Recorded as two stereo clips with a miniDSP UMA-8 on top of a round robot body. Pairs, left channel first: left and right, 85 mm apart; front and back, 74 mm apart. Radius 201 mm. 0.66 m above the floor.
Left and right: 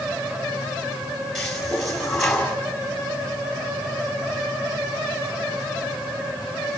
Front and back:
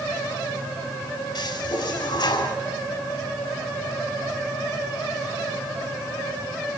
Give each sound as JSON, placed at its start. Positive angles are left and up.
{"t": 1.4, "sound": "a toilet flushing", "azimuth_deg": 5, "distance_m": 5.5}